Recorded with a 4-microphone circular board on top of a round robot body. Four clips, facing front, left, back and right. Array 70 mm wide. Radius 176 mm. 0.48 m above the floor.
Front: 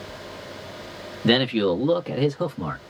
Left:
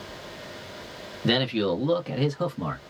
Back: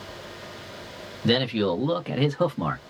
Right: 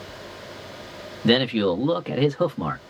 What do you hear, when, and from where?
1.2 s a man speaking: 30° right, 1.1 m; by 2.8 s 135° right, 1.3 m